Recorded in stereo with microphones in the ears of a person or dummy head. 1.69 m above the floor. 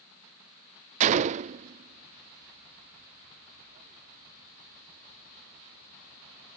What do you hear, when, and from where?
1.0 s a gunshot: 40° right (ahead or behind)